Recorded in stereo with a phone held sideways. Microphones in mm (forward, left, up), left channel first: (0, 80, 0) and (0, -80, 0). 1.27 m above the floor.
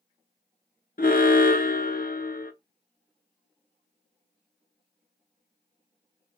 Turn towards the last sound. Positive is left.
turn(degrees=60)  # may be behind; listen again after turning